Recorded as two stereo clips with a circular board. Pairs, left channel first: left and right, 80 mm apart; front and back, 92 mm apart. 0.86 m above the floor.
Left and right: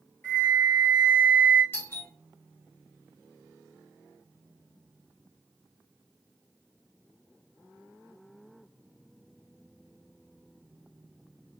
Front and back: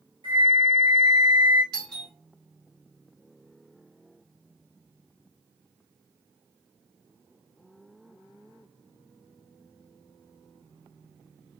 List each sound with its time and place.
0.2 s a flute: 160° left, 1.0 m
1.7 s a doorbell: 70° left, 1.5 m